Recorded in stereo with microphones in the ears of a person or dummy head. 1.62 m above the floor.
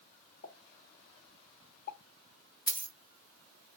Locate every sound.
0.4 s a pop: 50° left (ahead or behind), 1.7 m
2.7 s a dropped coin: 25° left (ahead or behind), 1.8 m